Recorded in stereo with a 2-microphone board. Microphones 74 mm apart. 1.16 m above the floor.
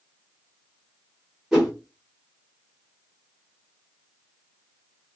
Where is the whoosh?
5° right (ahead or behind), 1.3 m.